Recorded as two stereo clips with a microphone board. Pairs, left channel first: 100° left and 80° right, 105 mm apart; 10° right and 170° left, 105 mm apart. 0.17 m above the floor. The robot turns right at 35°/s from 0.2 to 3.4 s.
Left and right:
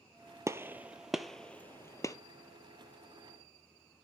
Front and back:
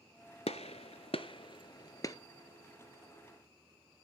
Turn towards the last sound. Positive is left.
turn(degrees=90)